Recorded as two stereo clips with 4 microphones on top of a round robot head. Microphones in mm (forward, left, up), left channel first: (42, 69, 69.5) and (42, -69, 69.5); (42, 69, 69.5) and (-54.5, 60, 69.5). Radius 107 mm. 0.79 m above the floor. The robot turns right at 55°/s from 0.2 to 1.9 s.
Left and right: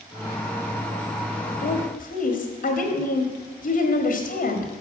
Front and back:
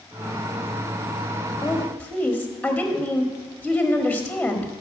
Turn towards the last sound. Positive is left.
turn(degrees=90)